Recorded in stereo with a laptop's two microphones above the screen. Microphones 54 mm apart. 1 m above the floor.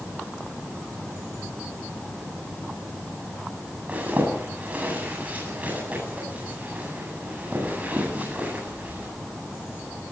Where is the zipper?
25° right (ahead or behind), 8.5 m.